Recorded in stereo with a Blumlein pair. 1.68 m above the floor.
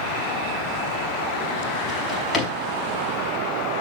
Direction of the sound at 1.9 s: 15° left.